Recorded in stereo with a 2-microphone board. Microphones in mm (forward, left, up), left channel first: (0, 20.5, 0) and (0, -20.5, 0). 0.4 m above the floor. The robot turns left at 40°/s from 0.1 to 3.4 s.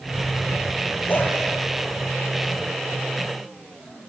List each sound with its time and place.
1.1 s a dog barking: 55° left (ahead or behind), 3 m; by 1.3 s 45° left (ahead or behind), 3 m